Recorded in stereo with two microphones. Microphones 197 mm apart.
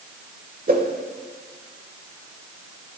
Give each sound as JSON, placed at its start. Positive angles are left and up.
{"t": 0.7, "sound": "a whoosh", "side_deg": -45, "distance_m": 1.5}